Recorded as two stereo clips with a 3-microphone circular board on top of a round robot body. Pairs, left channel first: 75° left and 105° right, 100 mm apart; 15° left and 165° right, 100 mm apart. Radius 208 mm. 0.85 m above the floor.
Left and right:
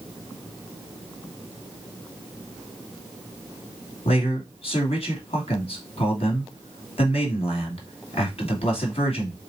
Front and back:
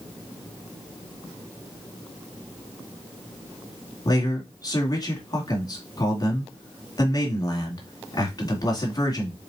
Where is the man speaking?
65° left, 2.5 m.